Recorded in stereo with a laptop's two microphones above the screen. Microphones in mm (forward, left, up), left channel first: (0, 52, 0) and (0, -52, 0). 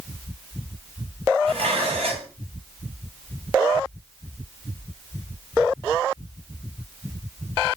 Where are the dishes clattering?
75° right (ahead or behind), 3.5 m.